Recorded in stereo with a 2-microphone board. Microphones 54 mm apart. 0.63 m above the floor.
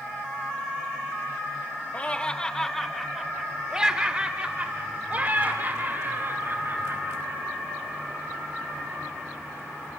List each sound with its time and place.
1.9 s laughter: 25° left (ahead or behind), 1.3 m; by 7.4 s 50° right (ahead or behind), 3 m